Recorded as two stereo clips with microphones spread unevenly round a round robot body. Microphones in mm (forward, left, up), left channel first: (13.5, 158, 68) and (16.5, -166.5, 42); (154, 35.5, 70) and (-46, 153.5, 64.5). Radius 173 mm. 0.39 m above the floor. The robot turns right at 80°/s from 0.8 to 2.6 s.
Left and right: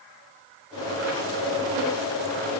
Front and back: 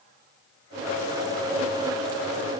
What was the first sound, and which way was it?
Only background noise.